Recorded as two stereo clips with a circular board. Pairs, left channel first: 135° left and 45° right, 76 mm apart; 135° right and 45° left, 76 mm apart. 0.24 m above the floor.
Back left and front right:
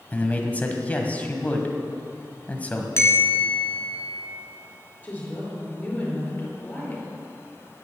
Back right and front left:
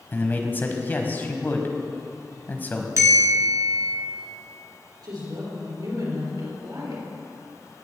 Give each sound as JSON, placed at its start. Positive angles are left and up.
{"t": 0.1, "sound": "a man speaking", "azimuth_deg": -175, "distance_m": 1.2}
{"t": 3.0, "sound": "a bell", "azimuth_deg": 85, "distance_m": 1.5}
{"t": 5.0, "sound": "a woman speaking", "azimuth_deg": 70, "distance_m": 4.0}